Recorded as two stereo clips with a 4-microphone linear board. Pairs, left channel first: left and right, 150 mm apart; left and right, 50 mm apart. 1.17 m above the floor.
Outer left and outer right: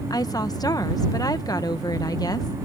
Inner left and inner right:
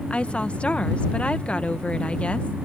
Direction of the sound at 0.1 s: 25° left (ahead or behind).